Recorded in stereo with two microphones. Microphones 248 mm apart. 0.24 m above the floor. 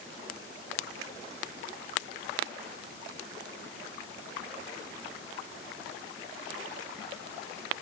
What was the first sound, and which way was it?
Only background noise.